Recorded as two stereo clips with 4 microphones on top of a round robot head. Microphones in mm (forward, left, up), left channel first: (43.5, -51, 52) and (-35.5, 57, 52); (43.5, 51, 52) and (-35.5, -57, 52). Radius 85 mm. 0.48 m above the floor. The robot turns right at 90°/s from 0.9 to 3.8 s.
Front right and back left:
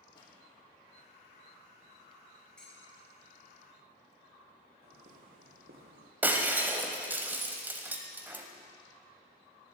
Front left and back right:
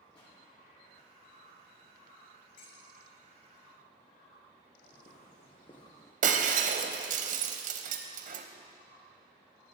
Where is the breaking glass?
155° right, 1.1 m.